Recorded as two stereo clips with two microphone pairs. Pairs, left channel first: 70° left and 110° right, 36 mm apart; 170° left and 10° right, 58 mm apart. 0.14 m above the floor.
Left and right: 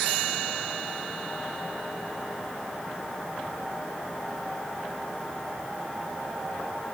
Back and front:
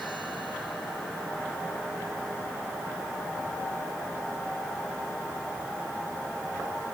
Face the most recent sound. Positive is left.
No sound to turn to.